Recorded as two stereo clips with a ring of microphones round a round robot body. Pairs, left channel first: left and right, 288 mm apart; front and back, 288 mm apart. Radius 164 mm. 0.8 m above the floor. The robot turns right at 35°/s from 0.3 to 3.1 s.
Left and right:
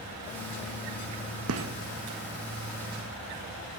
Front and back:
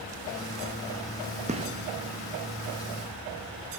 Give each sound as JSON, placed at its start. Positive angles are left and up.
{"t": 1.5, "sound": "a gunshot", "azimuth_deg": -115, "distance_m": 0.8}